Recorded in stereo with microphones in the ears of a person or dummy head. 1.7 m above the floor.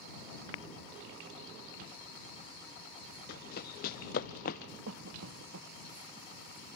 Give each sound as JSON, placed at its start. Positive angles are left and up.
{"t": 3.3, "sound": "running footsteps", "side_deg": 55}
{"t": 4.9, "sound": "a cough", "side_deg": -85}